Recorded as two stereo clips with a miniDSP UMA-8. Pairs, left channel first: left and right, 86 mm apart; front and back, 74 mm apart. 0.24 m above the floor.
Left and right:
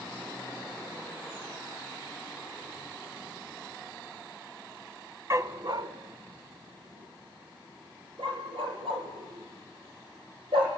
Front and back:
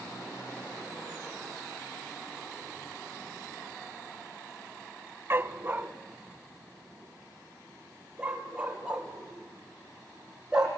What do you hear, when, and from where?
5.3 s a dog barking: 130° right, 0.6 m; by 10.7 s 100° right, 4.5 m